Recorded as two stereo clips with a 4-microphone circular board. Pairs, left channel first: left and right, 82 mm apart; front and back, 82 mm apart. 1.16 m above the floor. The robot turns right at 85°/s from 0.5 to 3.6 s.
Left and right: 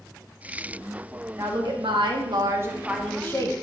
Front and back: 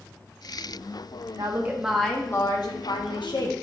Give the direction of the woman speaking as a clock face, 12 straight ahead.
5 o'clock.